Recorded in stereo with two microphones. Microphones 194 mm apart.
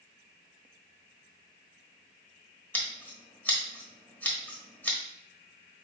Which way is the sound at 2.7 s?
10° left (ahead or behind).